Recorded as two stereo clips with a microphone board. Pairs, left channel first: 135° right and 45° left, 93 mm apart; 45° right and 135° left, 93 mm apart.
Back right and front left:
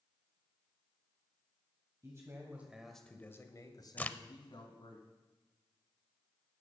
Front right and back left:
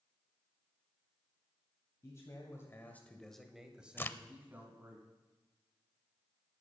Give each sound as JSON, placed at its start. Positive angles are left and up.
{"t": 2.0, "sound": "a man speaking", "azimuth_deg": 0, "distance_m": 1.8}
{"t": 4.0, "sound": "a crack", "azimuth_deg": -85, "distance_m": 0.5}